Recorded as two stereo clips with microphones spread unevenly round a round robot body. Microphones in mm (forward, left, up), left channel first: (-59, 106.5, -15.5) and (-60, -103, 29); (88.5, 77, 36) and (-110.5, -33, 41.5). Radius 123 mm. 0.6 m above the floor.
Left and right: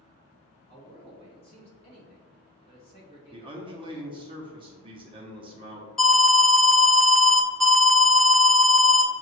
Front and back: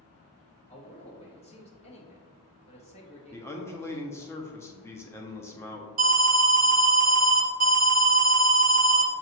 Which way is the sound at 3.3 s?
25° right.